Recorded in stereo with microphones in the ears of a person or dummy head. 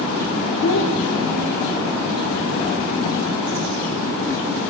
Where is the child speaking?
60° left (ahead or behind), 0.6 m; by 2.1 s 45° left (ahead or behind), 1.4 m.